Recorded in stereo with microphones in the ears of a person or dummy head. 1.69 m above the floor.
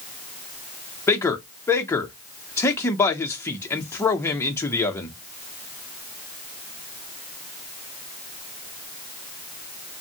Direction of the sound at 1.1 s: 15° left (ahead or behind).